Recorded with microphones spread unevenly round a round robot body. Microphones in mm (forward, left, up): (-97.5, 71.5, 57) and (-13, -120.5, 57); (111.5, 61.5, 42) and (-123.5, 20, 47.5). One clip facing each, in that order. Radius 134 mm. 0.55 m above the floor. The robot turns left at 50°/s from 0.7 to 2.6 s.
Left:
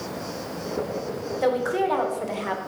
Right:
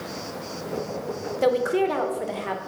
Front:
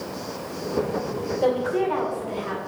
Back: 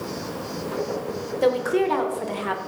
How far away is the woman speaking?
About 2 m.